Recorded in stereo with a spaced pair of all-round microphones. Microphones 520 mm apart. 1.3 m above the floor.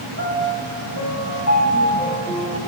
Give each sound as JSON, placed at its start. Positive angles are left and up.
{"t": 0.2, "sound": "a piano", "side_deg": 30, "distance_m": 7.0}